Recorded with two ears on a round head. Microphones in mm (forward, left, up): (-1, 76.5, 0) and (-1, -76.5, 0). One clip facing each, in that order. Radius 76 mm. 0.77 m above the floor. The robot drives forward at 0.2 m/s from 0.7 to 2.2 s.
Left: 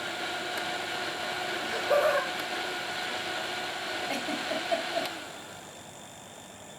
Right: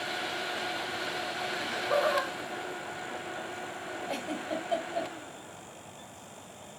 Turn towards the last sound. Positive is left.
turn(degrees=20)  # may be behind; listen again after turning